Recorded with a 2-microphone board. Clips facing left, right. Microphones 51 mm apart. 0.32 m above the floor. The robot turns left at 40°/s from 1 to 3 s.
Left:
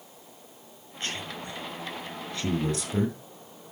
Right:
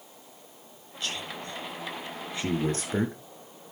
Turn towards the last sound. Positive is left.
turn(degrees=-45)  # may be behind; listen again after turning